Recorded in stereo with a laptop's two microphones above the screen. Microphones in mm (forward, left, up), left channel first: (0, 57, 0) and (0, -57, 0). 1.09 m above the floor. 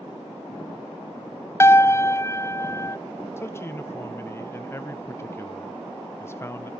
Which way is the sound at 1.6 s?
20° left (ahead or behind).